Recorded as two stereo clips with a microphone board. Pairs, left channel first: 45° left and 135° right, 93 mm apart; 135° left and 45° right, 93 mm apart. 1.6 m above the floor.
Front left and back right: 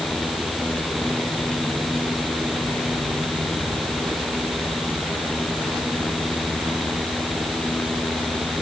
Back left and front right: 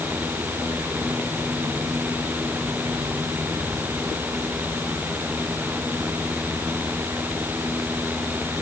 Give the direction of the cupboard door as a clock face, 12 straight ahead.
I don't hear a cupboard door.